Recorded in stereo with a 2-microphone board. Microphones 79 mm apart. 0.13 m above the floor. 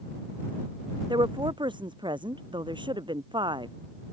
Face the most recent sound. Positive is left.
turn(degrees=-80)